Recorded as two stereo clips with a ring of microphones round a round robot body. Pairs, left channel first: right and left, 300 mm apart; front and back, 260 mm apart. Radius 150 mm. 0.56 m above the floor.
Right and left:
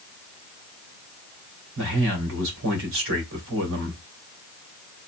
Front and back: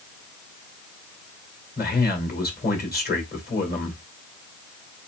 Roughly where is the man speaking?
Ahead left.